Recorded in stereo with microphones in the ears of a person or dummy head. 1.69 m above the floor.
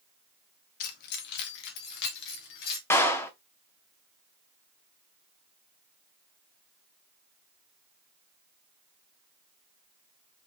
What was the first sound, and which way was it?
Keys jangling, 50° left (ahead or behind).